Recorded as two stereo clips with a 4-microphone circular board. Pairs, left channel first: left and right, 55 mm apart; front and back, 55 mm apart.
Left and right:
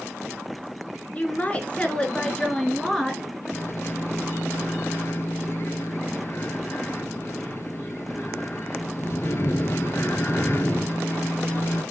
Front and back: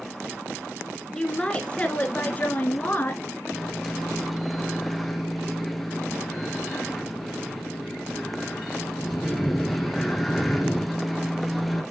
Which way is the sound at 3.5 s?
90° left.